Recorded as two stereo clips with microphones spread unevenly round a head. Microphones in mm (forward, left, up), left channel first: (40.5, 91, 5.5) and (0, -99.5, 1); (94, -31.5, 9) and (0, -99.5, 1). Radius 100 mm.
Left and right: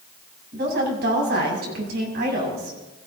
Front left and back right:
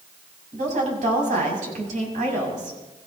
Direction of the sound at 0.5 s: 145° right.